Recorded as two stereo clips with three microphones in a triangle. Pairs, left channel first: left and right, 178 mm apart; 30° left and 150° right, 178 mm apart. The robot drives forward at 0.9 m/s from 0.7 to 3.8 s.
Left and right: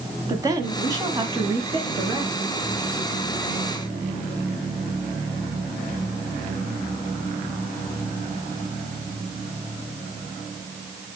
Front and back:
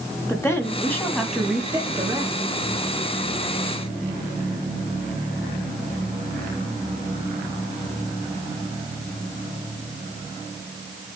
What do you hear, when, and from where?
0.3 s a woman speaking: 35° right, 1.9 m; by 2.4 s 130° right, 1.8 m